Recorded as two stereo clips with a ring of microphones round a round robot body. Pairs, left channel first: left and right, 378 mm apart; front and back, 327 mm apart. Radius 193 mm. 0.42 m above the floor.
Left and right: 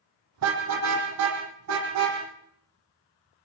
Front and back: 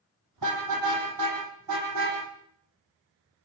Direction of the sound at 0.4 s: 135° right.